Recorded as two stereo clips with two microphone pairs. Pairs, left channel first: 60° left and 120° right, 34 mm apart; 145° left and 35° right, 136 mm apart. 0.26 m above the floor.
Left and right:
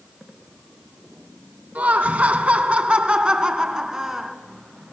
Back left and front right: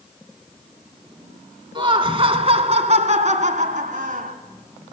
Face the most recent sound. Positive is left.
turn(degrees=-40)